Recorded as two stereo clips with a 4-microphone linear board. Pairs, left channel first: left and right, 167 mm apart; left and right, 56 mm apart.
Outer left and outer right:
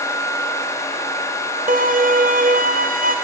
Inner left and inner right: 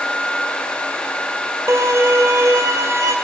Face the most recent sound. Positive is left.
turn(degrees=-60)  # may be behind; listen again after turning